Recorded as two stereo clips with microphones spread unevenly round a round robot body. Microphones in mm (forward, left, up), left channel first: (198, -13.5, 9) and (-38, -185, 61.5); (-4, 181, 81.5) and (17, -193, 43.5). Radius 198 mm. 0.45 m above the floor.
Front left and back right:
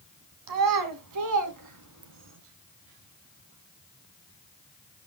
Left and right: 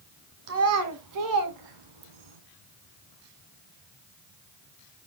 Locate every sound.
0.5 s a child speaking: 145° right, 2.5 m; by 2.4 s 105° right, 3 m